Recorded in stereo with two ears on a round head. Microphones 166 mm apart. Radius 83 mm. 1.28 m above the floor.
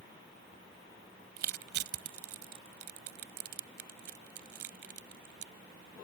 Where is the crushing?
65° right (ahead or behind).